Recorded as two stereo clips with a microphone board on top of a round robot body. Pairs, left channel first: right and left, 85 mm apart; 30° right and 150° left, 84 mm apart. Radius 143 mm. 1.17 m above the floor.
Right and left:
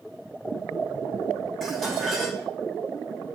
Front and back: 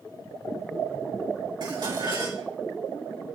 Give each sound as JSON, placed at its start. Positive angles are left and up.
{"t": 1.6, "sound": "dishes clattering", "azimuth_deg": 180, "distance_m": 6.0}